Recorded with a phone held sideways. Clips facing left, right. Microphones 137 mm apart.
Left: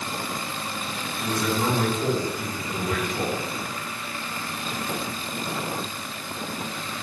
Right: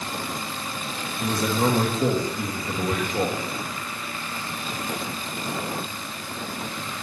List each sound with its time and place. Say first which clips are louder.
1.2 s a man speaking: right 2 dB; 40° right (ahead or behind), 2.5 m